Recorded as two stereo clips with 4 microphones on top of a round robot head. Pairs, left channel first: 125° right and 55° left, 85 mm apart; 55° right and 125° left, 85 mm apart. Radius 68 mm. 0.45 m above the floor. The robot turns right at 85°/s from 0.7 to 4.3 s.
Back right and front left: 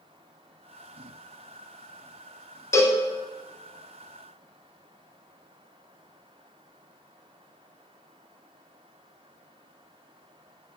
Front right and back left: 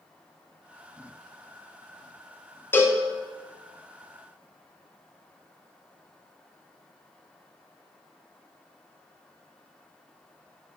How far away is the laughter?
No laughter in this recording.